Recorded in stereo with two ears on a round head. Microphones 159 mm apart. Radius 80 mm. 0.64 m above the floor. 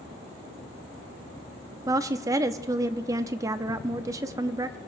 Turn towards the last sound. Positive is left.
turn(degrees=-20)  # may be behind; listen again after turning